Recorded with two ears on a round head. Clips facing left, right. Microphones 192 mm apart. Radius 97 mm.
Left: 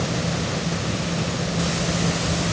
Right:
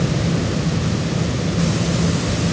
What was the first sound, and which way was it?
Only background noise.